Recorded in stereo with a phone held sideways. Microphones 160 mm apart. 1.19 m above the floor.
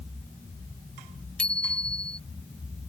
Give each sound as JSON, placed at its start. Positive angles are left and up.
{"t": 1.4, "sound": "a bicycle bell", "side_deg": 5}